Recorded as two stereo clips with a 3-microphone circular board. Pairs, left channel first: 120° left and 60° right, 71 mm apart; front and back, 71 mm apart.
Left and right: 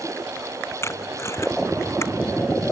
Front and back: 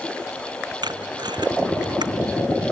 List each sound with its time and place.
0.8 s tape being pulled: 170° left